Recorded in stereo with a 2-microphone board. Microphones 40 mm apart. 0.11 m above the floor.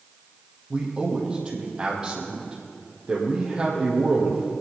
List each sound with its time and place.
0.7 s a man speaking: 20° right (ahead or behind), 4 m